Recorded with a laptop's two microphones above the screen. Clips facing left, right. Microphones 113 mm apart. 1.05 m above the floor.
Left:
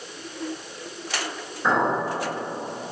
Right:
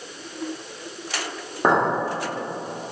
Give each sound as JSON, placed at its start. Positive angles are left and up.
{"t": 1.6, "sound": "a clink", "side_deg": -85, "distance_m": 1.7}